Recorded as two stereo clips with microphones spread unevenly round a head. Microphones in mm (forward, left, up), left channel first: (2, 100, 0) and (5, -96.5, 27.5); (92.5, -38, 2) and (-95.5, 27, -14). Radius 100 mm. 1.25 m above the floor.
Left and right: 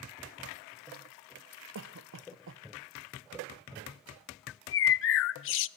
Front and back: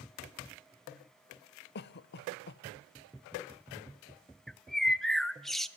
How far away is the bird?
About 0.5 m.